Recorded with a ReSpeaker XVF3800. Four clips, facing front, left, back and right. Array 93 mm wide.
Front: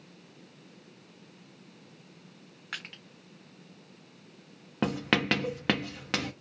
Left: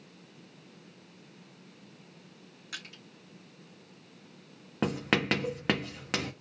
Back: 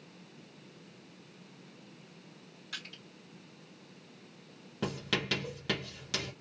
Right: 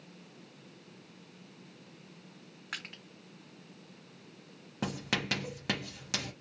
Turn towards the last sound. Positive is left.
turn(degrees=35)